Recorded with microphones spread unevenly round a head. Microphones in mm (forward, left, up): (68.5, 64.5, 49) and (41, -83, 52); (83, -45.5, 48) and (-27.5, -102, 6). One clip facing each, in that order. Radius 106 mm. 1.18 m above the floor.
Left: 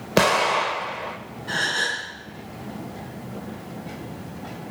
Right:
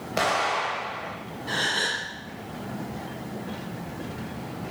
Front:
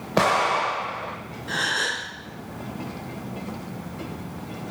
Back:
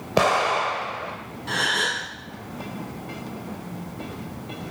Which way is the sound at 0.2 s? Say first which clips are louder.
Left 6 dB, back 1 dB; 115° left.